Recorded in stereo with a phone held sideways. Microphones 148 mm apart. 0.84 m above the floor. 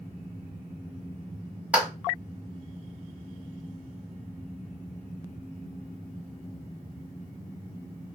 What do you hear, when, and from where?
1.7 s a clap: 10° right (ahead or behind), 1.2 m